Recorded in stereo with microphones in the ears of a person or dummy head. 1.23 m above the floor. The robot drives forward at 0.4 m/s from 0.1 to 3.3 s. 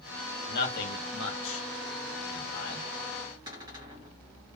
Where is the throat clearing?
I don't hear throat clearing.